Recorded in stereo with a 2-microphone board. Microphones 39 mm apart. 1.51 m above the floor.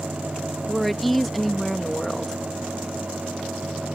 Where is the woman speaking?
Centre (ahead or behind).